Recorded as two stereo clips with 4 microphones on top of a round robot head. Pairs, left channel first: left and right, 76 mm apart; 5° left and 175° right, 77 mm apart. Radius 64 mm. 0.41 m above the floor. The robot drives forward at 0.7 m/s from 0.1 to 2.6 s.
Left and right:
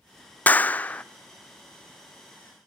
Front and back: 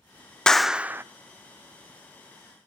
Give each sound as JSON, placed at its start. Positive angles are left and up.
{"t": 0.5, "sound": "a clap", "azimuth_deg": 65, "distance_m": 0.6}